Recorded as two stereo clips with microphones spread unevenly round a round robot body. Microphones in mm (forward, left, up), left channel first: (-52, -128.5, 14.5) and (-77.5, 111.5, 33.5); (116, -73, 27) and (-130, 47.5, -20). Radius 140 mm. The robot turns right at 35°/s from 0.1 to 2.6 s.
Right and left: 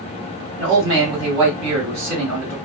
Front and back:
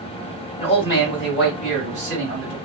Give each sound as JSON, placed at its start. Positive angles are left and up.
{"t": 0.6, "sound": "a man speaking", "azimuth_deg": 30, "distance_m": 1.6}